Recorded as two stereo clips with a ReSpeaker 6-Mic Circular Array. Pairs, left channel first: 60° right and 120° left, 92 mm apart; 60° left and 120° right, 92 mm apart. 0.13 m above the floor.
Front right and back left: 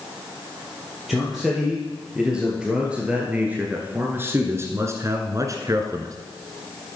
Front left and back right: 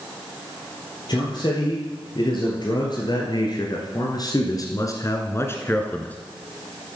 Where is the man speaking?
30° left, 3 m; by 6.2 s 125° left, 1.6 m.